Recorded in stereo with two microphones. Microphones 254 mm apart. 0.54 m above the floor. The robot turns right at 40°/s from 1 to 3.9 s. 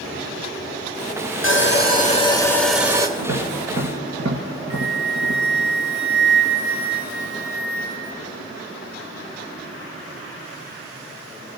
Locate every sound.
1.4 s sawing: 130° left, 1.4 m; by 3.1 s 165° right, 1.4 m
3.2 s tapping: 65° right (ahead or behind), 1.7 m; by 5.7 s 75° right (ahead or behind), 1.7 m
4.7 s a flute: 30° left (ahead or behind), 1.3 m